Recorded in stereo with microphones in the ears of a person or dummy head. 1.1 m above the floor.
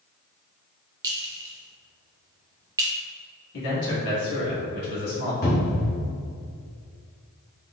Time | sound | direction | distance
1.0 | a clink | 15° right (ahead or behind) | 0.6 m
3.5 | a man speaking | 65° left (ahead or behind) | 1.7 m
5.4 | a cupboard door | 55° left (ahead or behind) | 0.8 m